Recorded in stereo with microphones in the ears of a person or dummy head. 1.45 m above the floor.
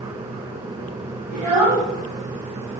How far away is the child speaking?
About 1.1 m.